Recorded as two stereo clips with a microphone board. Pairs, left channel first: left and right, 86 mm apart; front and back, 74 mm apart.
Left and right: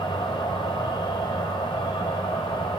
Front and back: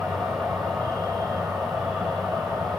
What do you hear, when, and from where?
0.0 s an insect: 115° left, 1.3 m